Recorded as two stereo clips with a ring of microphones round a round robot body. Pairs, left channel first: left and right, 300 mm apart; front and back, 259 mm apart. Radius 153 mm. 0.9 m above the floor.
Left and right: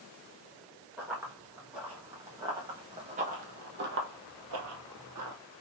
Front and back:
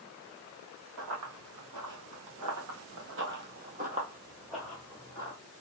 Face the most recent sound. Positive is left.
turn(degrees=-65)